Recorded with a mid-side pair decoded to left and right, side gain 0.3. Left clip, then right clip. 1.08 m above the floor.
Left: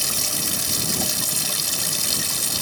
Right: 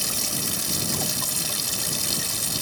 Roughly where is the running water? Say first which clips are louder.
Left 3 dB; ahead left.